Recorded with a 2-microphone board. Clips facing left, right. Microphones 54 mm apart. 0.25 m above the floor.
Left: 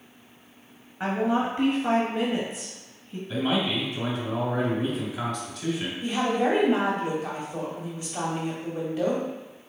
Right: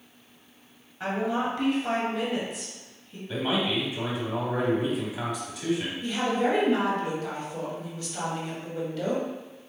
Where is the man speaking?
10° right (ahead or behind), 1.3 m.